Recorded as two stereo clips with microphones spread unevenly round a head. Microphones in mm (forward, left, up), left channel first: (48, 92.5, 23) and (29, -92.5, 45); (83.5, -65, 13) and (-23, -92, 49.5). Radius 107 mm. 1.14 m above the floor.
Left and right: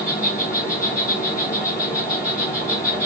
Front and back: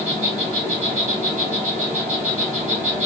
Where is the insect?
Straight behind, 0.9 m.